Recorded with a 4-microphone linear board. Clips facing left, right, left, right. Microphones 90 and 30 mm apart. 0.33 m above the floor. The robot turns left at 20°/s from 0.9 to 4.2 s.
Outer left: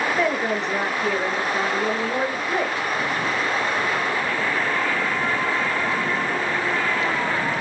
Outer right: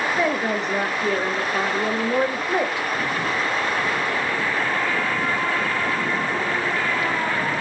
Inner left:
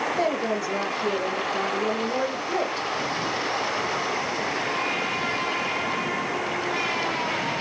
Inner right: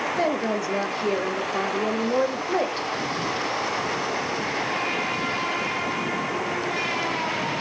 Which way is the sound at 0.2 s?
Centre (ahead or behind).